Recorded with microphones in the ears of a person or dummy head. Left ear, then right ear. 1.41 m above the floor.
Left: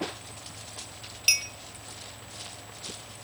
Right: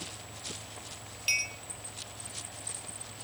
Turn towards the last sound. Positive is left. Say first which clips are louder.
# left 5 dB
turn(degrees=20)  # may be behind; listen again after turning